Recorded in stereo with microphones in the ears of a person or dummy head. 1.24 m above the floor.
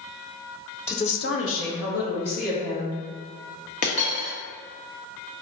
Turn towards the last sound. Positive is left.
turn(degrees=40)  # may be behind; listen again after turning